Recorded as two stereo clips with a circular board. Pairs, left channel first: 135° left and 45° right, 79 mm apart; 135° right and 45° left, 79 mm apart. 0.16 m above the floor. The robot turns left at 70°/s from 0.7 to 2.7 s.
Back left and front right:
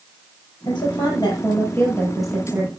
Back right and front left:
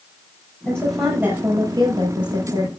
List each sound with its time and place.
0.7 s a woman speaking: 150° left, 4.5 m; by 2.7 s 10° left, 4.5 m